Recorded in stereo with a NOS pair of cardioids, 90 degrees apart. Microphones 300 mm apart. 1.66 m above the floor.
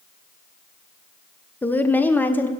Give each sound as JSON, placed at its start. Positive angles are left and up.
{"t": 1.6, "sound": "a woman speaking", "azimuth_deg": 5, "distance_m": 1.1}